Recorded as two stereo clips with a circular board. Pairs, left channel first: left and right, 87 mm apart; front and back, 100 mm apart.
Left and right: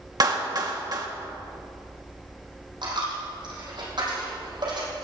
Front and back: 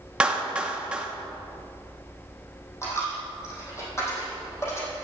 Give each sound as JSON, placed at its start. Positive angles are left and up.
{"t": 0.2, "sound": "a clap", "azimuth_deg": -105, "distance_m": 1.1}
{"t": 2.8, "sound": "a dropped coin", "azimuth_deg": -60, "distance_m": 3.5}